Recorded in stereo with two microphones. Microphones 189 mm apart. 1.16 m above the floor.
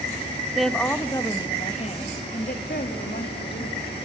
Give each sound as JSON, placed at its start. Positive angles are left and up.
{"t": 0.6, "sound": "a woman speaking", "side_deg": 0, "distance_m": 1.8}